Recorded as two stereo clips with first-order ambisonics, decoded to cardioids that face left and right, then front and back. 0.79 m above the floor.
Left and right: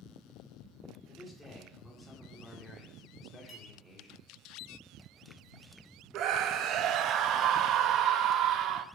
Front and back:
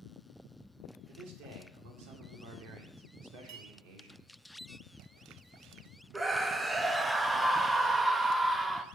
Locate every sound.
1.1 s a man speaking: 175° left, 2 m
3.5 s a clink: straight behind, 2 m
6.1 s a scream: 105° right, 0.6 m